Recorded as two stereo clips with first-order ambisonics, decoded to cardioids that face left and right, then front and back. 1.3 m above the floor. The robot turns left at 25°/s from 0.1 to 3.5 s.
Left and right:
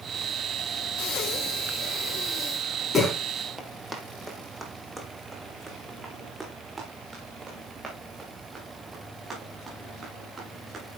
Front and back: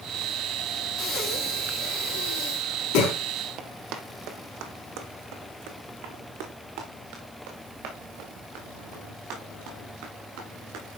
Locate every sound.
1.0 s breathing: 60° left, 4 m; by 3.2 s 5° left, 4 m
3.6 s running footsteps: 170° right, 1.7 m; by 11.0 s 165° right, 9 m